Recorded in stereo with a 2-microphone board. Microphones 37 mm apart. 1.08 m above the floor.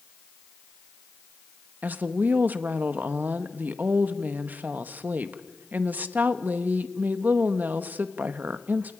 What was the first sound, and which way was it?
A woman speaking, 60° right (ahead or behind).